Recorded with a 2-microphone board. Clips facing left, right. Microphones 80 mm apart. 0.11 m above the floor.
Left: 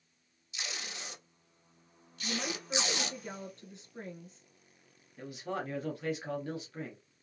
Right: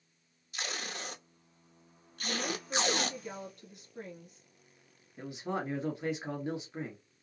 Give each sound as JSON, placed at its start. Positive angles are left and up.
{"t": 0.5, "sound": "tape being pulled", "side_deg": -50, "distance_m": 0.9}
{"t": 2.2, "sound": "a woman speaking", "side_deg": 30, "distance_m": 1.2}
{"t": 5.2, "sound": "a man speaking", "side_deg": -20, "distance_m": 1.2}